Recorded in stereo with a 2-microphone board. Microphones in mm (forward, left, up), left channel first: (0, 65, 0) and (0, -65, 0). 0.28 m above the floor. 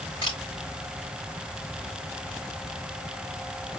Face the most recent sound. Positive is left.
turn(degrees=40)  # may be behind; listen again after turning